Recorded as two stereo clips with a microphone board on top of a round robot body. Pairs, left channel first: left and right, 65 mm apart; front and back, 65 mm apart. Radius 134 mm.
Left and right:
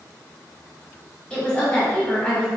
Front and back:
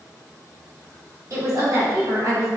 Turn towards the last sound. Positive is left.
turn(degrees=165)